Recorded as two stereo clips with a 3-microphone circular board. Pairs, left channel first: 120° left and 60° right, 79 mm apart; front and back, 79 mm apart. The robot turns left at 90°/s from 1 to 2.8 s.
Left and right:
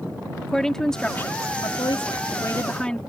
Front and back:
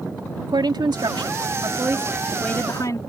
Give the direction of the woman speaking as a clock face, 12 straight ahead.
5 o'clock.